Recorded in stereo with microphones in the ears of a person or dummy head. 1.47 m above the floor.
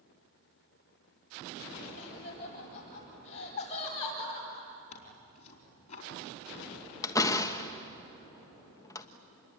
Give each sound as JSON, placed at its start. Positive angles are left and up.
{"t": 2.0, "sound": "laughter", "side_deg": 40, "distance_m": 9.0}
{"t": 4.9, "sound": "tearing paper", "side_deg": 40, "distance_m": 4.5}
{"t": 7.0, "sound": "a door slam", "side_deg": 25, "distance_m": 1.3}